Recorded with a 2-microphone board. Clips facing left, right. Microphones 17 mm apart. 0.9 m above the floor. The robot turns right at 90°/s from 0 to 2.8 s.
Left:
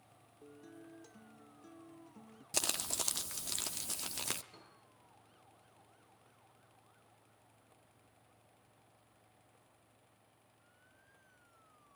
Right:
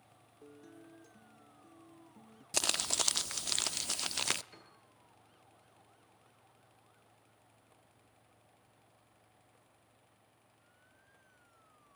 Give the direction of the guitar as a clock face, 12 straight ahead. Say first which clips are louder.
Even; 1 o'clock.